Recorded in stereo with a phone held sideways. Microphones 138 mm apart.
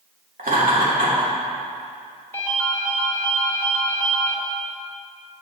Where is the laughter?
80° right, 2 m.